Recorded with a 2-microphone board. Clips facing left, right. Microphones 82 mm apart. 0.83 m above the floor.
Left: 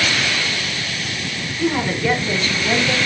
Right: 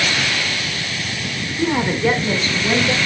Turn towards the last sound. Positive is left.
turn(degrees=-20)  # may be behind; listen again after turning